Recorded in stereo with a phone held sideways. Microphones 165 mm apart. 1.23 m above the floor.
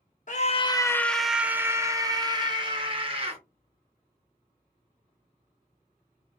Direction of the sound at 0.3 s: 55° left (ahead or behind).